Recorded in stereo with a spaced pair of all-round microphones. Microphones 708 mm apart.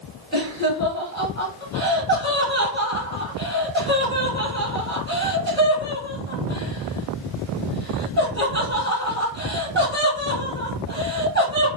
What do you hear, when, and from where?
0.3 s laughter: 5° left (ahead or behind), 0.9 m